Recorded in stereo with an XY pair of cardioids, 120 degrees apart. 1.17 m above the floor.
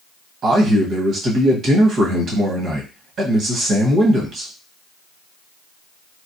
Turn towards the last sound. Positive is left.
turn(degrees=-55)